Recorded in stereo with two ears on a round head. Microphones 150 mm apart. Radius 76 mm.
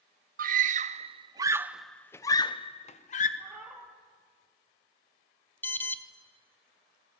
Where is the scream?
55° right (ahead or behind), 1.1 m; by 3.3 s 50° left (ahead or behind), 1.2 m.